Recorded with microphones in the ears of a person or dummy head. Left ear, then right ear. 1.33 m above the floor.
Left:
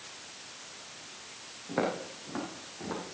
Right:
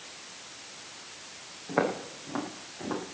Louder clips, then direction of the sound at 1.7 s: Right 3 dB; 25° right (ahead or behind).